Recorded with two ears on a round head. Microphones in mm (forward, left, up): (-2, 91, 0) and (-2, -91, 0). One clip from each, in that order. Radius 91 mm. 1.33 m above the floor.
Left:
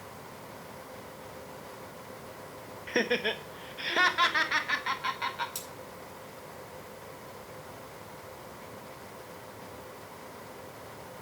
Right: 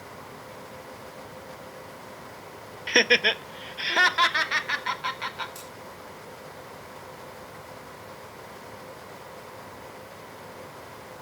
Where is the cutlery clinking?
35° left (ahead or behind), 6.5 m.